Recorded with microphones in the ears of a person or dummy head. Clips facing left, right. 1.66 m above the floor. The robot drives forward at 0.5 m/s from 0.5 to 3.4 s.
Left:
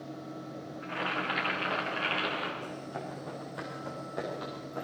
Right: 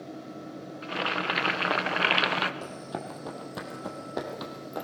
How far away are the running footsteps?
About 3.5 m.